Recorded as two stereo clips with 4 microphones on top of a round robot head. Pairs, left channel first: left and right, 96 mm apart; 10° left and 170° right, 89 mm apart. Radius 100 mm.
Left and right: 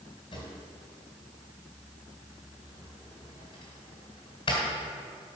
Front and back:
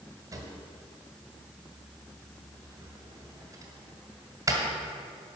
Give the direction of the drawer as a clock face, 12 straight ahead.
7 o'clock.